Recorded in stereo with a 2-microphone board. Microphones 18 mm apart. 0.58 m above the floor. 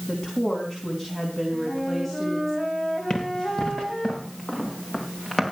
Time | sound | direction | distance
0.1 | a woman speaking | 20° left (ahead or behind) | 4 m
1.5 | a flute | centre (ahead or behind) | 5.5 m
3.1 | running footsteps | 35° left (ahead or behind) | 5 m